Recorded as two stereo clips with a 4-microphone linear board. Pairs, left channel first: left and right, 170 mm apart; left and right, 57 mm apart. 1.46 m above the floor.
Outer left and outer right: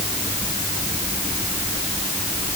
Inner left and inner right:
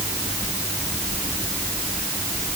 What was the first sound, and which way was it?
Only background noise.